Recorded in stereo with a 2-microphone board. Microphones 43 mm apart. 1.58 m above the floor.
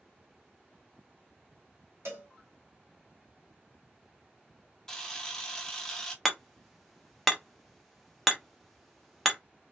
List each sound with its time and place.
2.0 s a cowbell: 65° right (ahead or behind), 0.9 m
4.9 s a camera shutter: 10° left (ahead or behind), 0.6 m
6.2 s hammering: centre (ahead or behind), 0.6 m